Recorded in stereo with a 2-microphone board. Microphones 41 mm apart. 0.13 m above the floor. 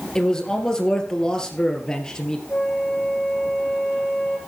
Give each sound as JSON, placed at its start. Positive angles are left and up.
{"t": 0.1, "sound": "a man speaking", "side_deg": 15, "distance_m": 3.0}
{"t": 2.5, "sound": "a flute", "side_deg": 40, "distance_m": 4.0}